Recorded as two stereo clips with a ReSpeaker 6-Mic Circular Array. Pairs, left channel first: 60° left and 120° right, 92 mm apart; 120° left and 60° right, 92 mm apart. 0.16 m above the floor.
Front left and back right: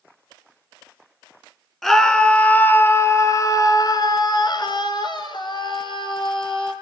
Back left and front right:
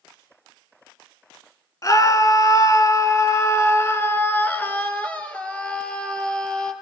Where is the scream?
145° left, 1.9 m; by 6.7 s 40° left, 4 m.